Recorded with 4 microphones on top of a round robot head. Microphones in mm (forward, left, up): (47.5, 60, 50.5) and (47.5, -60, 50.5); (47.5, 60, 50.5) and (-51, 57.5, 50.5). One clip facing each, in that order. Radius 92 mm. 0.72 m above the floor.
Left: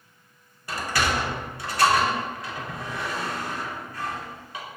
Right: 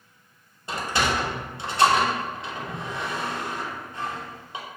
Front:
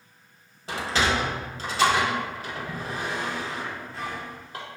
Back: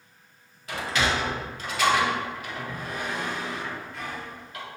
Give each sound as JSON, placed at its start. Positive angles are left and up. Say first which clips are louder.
{"t": 0.7, "sound": "a sliding door", "louder": "right 1 dB, front 1 dB", "azimuth_deg": -35, "distance_m": 0.7}